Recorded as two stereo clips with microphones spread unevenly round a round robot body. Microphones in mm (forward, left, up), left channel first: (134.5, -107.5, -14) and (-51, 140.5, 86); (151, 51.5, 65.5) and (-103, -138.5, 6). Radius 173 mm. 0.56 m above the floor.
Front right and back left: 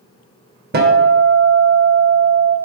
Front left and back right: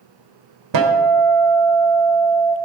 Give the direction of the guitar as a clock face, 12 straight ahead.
6 o'clock.